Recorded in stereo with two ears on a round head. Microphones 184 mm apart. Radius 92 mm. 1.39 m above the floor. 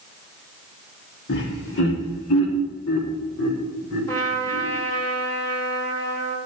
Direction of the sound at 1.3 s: 55° left (ahead or behind).